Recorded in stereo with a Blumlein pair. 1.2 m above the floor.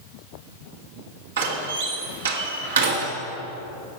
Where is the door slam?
65° right, 1.8 m.